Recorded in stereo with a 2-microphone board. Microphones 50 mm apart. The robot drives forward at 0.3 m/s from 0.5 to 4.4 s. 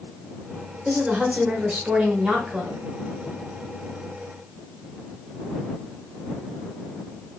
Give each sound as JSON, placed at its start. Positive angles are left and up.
{"t": 0.8, "sound": "a woman speaking", "side_deg": -25, "distance_m": 1.0}